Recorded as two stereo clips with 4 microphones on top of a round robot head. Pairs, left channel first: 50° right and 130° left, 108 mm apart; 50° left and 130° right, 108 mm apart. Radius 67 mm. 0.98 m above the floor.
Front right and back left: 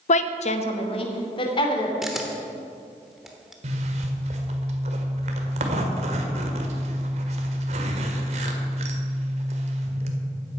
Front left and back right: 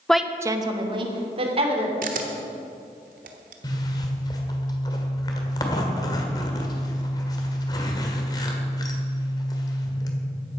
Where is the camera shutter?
140° right, 1.1 m.